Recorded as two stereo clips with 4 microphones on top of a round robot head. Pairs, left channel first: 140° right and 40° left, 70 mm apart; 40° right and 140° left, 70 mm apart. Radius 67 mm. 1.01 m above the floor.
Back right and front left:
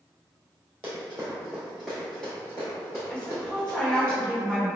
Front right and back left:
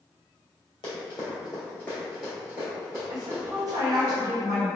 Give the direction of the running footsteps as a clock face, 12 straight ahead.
1 o'clock.